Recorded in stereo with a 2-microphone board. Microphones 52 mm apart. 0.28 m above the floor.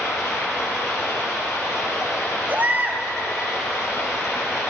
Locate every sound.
0.0 s running water: 85° left, 4 m
2.5 s a baby crying: 40° right (ahead or behind), 0.7 m